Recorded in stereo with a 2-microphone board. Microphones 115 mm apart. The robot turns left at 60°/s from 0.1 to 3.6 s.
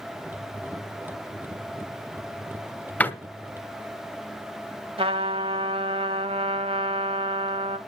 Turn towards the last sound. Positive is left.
turn(degrees=-55)  # may be behind; listen again after turning